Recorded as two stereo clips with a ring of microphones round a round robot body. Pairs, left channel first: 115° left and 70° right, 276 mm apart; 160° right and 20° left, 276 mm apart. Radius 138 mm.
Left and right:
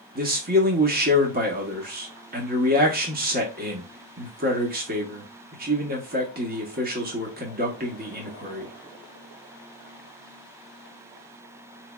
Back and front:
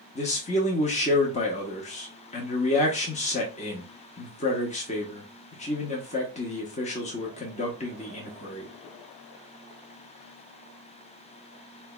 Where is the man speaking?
105° right, 0.8 m.